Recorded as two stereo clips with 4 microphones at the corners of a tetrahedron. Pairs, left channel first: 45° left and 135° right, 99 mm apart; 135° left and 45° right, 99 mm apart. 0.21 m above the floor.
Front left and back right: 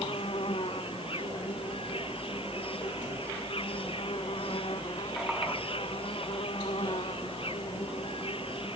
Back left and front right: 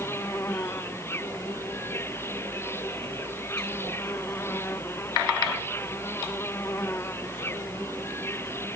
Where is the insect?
70° left.